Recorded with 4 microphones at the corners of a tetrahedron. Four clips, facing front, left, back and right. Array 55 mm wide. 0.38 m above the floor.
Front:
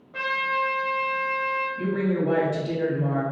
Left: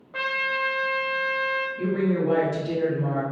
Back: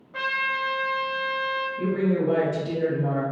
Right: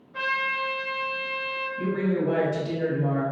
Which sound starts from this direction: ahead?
A woman speaking, at 1.8 s.